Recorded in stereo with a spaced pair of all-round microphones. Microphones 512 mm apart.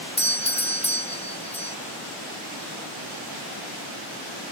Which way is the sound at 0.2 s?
15° left (ahead or behind).